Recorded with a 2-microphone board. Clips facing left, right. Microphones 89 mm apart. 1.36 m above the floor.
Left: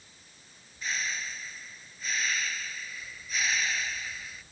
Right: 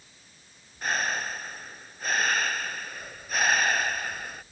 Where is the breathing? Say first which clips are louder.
Right 7 dB; 50° right (ahead or behind).